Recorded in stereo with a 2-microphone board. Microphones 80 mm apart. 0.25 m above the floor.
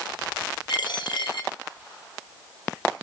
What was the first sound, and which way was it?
A dropped coin, 75° left (ahead or behind).